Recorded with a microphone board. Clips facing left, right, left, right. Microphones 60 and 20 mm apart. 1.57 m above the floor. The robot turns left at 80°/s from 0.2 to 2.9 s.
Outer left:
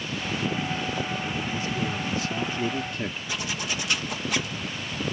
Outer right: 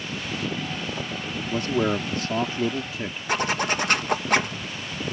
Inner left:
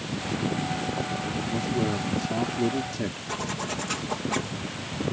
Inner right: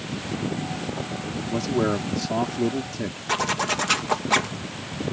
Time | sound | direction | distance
1.5 | a man speaking | 65° right | ?
3.3 | a zipper | 50° right (ahead or behind) | ?